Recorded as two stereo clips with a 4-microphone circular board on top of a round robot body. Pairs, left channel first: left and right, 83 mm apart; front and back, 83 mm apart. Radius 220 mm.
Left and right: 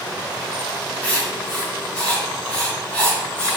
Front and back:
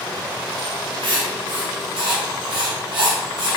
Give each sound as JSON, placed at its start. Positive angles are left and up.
{"t": 1.0, "sound": "writing", "azimuth_deg": 170, "distance_m": 1.3}